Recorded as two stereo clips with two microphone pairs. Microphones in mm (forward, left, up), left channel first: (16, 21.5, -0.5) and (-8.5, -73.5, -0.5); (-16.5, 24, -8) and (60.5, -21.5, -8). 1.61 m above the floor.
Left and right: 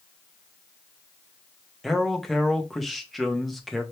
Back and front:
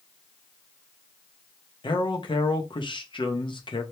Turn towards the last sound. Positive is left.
turn(degrees=165)